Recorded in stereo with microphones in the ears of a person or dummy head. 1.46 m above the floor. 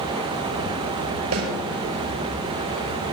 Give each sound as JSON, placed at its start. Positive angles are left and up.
{"t": 1.3, "sound": "a snare drum", "side_deg": -80, "distance_m": 5.5}